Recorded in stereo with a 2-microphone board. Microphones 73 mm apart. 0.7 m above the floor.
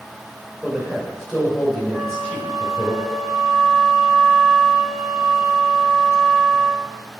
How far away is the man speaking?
About 3 m.